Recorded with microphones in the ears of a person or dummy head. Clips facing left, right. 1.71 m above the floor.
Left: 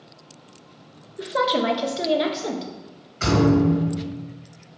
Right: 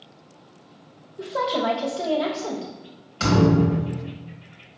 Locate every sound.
1.2 s a woman speaking: 20° left (ahead or behind), 0.6 m
3.2 s a thud: 55° right (ahead or behind), 1.6 m